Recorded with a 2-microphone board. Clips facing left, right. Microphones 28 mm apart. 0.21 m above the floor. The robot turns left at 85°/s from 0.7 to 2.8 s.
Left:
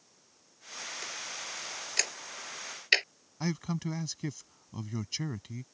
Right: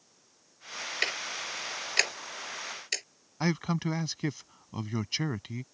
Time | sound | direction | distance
1.0 | ticking | 70° right (ahead or behind) | ?
3.4 | a man speaking | 30° right (ahead or behind) | ?